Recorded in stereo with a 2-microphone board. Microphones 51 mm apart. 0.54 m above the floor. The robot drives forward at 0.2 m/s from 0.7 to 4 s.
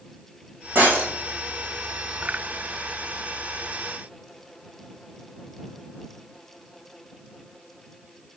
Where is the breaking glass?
40° right (ahead or behind), 2.5 m.